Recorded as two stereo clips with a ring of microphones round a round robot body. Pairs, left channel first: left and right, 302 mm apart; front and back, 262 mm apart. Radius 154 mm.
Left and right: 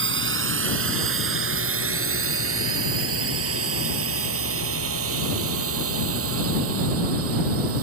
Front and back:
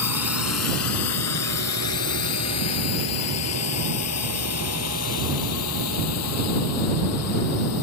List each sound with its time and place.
0.0 s a drone: 40° right; by 7.8 s 45° right